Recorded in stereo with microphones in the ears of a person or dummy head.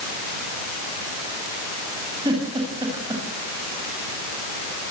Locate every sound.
2.2 s a giggle: 25° right (ahead or behind), 9.5 m